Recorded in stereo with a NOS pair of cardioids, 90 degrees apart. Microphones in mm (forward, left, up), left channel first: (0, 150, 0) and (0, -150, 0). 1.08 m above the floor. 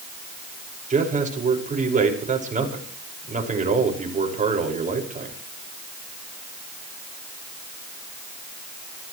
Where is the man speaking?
25° right, 5.5 m.